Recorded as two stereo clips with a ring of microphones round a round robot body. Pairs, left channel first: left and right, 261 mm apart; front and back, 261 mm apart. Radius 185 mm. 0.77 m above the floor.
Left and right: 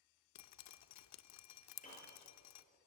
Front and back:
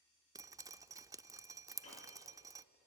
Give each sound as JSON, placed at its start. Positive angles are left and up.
{"t": 0.3, "sound": "dripping", "azimuth_deg": 100, "distance_m": 0.6}
{"t": 1.8, "sound": "a piano", "azimuth_deg": 30, "distance_m": 8.5}